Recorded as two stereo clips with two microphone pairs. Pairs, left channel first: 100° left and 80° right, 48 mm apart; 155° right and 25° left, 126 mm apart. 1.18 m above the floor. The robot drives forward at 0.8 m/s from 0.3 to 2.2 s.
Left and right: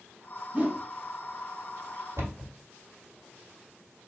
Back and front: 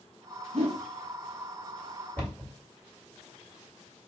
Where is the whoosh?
15° right, 1.3 m.